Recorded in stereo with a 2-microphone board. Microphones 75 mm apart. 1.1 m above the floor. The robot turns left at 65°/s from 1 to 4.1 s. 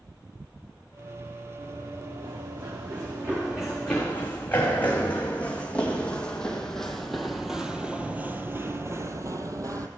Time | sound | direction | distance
1.6 | running footsteps | 45° right (ahead or behind) | 5.5 m